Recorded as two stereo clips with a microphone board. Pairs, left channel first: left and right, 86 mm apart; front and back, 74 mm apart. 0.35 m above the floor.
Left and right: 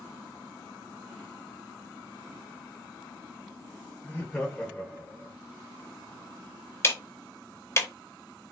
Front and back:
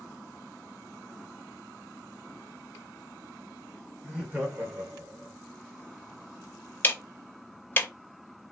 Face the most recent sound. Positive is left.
turn(degrees=45)